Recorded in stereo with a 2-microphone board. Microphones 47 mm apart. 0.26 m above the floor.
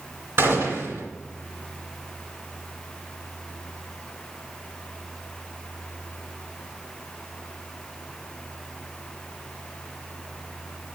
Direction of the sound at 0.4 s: 60° right (ahead or behind).